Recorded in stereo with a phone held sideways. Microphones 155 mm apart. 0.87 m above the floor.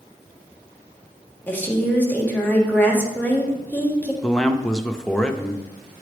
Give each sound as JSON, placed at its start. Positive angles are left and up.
{"t": 1.5, "sound": "a woman speaking", "side_deg": 10, "distance_m": 1.5}
{"t": 4.2, "sound": "a man speaking", "side_deg": 5, "distance_m": 0.5}